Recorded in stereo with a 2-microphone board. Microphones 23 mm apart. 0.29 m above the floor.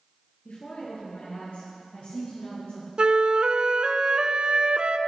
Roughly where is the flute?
Right.